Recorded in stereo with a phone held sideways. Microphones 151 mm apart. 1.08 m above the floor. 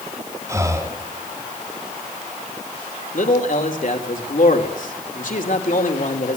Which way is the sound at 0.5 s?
20° right (ahead or behind).